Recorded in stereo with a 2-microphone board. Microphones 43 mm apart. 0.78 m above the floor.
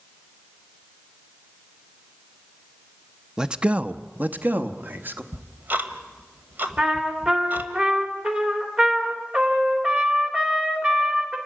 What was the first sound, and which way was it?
A man speaking, 15° right (ahead or behind).